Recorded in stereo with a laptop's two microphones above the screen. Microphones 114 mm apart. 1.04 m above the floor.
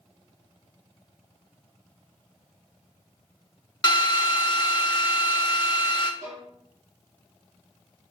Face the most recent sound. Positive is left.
turn(degrees=-75)  # may be behind; listen again after turning